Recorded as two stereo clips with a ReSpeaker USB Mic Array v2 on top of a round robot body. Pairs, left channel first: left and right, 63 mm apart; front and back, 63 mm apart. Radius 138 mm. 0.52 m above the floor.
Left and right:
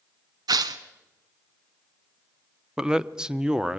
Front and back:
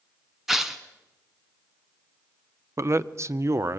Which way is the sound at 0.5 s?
95° right.